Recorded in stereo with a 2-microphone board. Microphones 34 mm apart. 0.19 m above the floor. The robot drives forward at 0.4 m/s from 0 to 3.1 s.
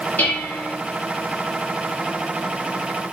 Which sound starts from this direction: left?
Dishes clattering, at 0.2 s.